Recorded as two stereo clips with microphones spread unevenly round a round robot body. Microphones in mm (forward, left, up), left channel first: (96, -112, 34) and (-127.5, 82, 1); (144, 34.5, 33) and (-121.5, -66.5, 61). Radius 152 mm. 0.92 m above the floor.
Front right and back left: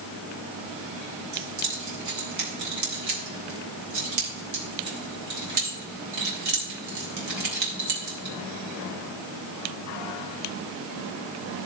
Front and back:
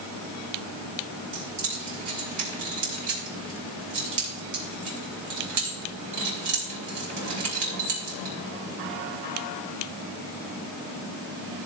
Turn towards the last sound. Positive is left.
turn(degrees=170)